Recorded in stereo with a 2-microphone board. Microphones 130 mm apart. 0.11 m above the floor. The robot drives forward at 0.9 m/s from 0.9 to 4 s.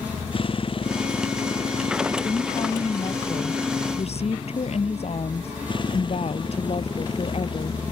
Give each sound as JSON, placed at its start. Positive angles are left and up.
{"t": 0.0, "sound": "a motorcycle", "side_deg": 45}
{"t": 2.2, "sound": "a woman speaking", "side_deg": 35}